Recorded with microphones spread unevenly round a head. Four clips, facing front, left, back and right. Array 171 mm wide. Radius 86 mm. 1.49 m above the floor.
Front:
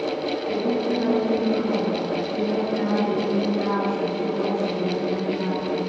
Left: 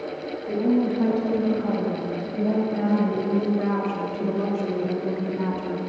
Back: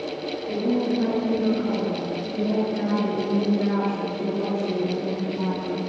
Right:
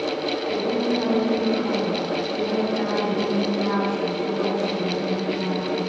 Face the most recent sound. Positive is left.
turn(degrees=140)